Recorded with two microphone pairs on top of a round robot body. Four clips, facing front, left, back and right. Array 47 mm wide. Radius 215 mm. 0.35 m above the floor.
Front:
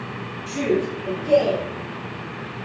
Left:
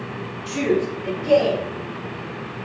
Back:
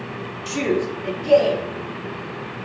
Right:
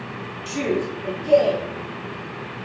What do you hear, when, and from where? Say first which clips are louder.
0.5 s a man speaking: left 3 dB, even; 170° right, 1.1 m; by 1.6 s 155° left, 1.6 m